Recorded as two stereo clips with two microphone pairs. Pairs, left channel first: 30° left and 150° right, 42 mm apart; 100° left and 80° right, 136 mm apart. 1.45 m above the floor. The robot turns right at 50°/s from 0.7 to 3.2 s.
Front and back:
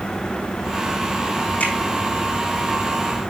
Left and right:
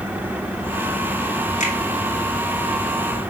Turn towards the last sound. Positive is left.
turn(degrees=155)